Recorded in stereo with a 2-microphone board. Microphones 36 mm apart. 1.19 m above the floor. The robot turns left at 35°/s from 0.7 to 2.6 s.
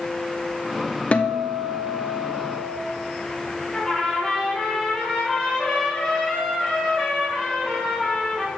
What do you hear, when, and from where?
1.1 s a guitar: 140° left, 0.7 m; by 2.8 s 90° left, 0.7 m
3.7 s a trumpet: 15° left (ahead or behind), 4.5 m